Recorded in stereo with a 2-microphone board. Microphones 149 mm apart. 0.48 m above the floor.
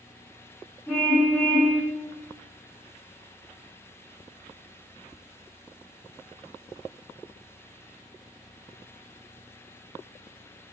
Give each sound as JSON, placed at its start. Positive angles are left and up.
{"t": 0.9, "sound": "a car horn", "side_deg": 10, "distance_m": 10.0}